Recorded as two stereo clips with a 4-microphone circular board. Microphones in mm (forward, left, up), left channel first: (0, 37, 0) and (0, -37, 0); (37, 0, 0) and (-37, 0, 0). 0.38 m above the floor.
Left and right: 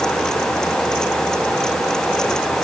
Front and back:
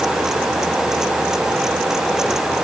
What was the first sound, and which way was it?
Only background noise.